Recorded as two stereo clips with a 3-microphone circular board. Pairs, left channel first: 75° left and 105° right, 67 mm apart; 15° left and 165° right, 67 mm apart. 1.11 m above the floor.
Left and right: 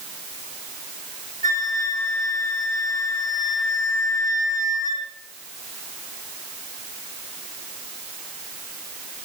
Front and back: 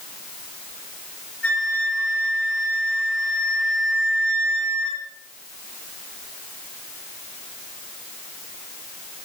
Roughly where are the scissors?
No scissors in this recording.